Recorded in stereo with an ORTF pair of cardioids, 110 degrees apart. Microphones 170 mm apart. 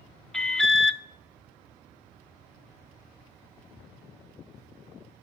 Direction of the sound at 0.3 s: 5° left.